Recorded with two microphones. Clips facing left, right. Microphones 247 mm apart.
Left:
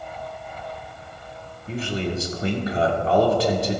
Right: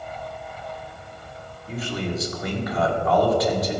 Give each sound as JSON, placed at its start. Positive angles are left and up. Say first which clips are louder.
{"t": 1.7, "sound": "a man speaking", "louder": "left 2 dB", "side_deg": 30, "distance_m": 1.8}